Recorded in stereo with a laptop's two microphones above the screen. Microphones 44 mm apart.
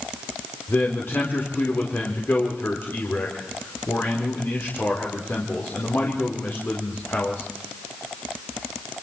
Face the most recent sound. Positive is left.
turn(degrees=55)  # may be behind; listen again after turning